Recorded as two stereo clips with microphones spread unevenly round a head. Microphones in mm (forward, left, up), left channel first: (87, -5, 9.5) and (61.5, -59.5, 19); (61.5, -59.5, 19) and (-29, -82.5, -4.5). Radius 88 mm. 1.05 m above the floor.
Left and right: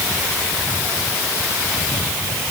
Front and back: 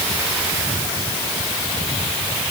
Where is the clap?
I don't hear a clap.